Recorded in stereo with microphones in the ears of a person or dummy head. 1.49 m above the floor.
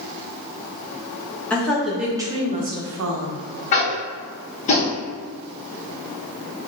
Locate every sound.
1.5 s a woman speaking: 10° left (ahead or behind), 1.1 m; by 3.4 s 75° right (ahead or behind), 0.7 m
3.7 s tapping: 40° left (ahead or behind), 1.1 m